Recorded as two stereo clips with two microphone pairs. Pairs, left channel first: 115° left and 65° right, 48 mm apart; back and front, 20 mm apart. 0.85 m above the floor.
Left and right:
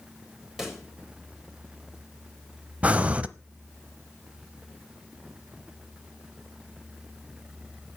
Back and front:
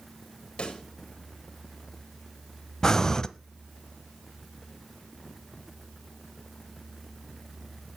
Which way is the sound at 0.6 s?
145° right.